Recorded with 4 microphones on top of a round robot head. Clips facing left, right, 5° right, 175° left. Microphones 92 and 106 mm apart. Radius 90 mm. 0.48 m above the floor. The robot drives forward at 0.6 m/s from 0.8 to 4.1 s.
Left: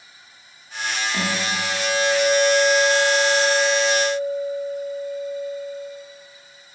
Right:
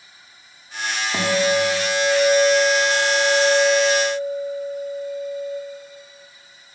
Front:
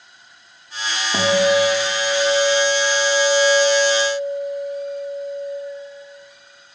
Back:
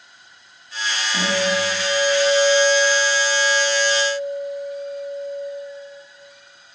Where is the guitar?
30° right, 1.2 m; by 5.5 s 155° right, 1.4 m.